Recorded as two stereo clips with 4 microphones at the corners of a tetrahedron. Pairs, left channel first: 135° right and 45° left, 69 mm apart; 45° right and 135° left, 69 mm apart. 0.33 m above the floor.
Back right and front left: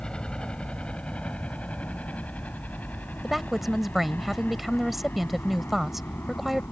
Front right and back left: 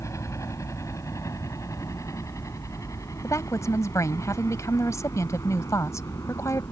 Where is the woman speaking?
40° right.